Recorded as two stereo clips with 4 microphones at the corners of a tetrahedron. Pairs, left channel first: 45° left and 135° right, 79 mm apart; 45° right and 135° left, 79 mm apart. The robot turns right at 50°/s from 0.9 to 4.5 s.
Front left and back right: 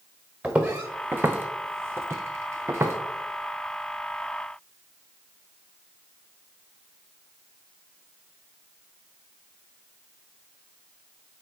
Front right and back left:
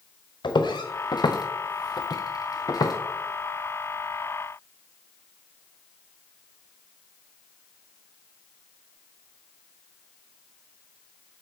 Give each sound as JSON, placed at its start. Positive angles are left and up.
{"t": 0.4, "sound": "footsteps", "azimuth_deg": -65, "distance_m": 1.2}